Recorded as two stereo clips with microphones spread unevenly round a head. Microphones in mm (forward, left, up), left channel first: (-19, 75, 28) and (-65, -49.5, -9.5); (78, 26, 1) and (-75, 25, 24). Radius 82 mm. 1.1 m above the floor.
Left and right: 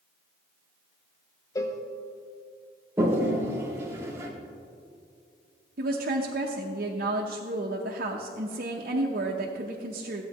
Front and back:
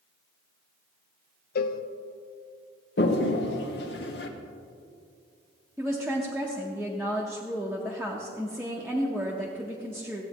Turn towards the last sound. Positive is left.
turn(degrees=-95)